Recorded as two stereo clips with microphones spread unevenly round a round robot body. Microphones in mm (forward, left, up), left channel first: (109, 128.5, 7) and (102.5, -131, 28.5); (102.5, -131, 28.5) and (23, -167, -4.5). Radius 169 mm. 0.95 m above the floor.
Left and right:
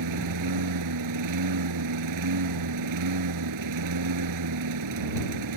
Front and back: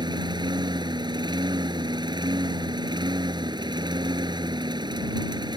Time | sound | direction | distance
0.0 | a lawn mower | 115° right | ?